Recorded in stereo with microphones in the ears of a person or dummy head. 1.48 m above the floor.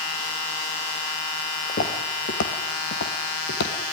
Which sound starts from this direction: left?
Footsteps, at 1.7 s.